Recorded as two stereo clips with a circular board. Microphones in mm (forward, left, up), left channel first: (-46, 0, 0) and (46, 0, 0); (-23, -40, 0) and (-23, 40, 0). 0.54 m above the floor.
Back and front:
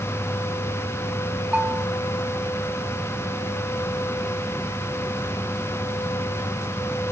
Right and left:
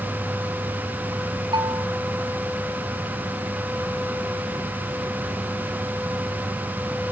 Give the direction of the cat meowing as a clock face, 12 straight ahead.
No cat meowing in this recording.